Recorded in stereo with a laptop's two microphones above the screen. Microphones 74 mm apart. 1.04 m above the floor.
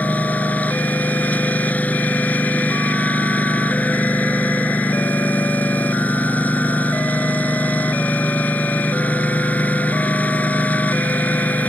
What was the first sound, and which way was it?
A lawn mower, 20° left (ahead or behind).